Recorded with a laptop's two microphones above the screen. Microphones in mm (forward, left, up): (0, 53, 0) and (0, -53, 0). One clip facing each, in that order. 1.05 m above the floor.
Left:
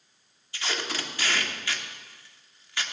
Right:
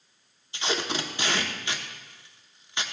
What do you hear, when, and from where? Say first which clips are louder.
0.5 s tape being pulled: right 4 dB; 25° right (ahead or behind), 0.9 m